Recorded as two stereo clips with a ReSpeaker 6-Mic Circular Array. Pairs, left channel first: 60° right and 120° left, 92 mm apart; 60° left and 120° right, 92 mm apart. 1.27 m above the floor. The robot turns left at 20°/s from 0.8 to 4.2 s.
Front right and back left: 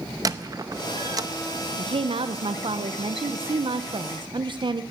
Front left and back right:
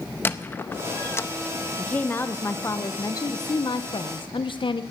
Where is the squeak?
115° left, 0.6 m; by 1.3 s 105° left, 0.6 m.